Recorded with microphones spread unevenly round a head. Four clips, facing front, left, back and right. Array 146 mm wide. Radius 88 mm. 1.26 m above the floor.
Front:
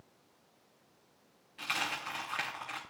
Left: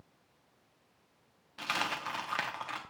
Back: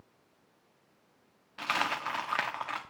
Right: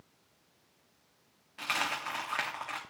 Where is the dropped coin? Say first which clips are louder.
Right 1 dB, back 6 dB; 85° left, 0.7 m.